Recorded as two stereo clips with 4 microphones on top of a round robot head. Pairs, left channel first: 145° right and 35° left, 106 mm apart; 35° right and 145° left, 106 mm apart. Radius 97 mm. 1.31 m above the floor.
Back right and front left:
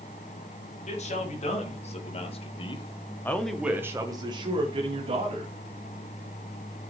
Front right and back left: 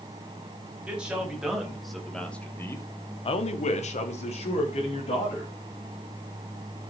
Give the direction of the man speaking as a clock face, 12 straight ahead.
4 o'clock.